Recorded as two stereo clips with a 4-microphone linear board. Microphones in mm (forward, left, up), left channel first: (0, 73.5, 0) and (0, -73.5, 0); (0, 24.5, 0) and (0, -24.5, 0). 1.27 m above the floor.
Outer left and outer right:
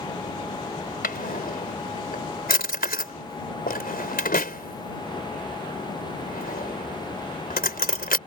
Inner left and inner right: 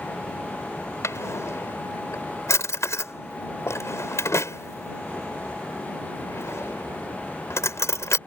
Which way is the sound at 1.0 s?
85° left.